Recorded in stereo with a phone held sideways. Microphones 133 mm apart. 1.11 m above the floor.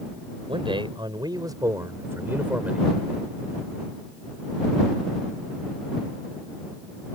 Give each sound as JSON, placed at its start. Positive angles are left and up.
{"t": 0.5, "sound": "a man speaking", "side_deg": -40}